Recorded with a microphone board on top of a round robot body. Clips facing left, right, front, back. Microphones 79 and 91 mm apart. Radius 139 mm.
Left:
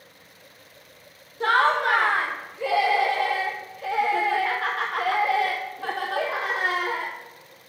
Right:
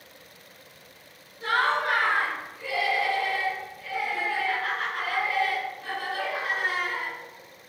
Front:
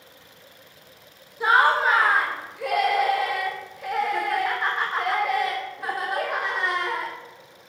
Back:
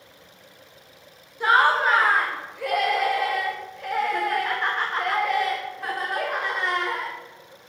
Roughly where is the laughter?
Left.